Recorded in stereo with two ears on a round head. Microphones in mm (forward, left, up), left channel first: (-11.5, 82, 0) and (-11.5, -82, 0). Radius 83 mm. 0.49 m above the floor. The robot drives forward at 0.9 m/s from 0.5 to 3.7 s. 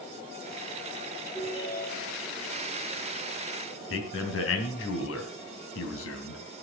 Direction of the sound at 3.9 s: 75° left (ahead or behind).